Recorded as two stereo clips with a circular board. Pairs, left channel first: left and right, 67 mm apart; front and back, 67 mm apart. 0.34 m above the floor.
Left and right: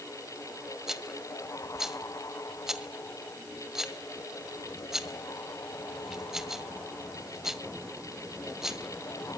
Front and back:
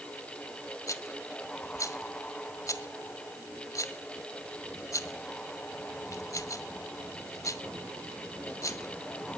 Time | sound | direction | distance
0.9 | a rattle | 10° right | 1.6 m